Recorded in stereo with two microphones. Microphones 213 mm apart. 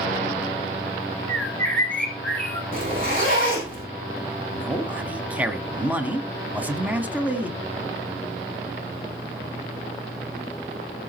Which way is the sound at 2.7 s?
45° right (ahead or behind).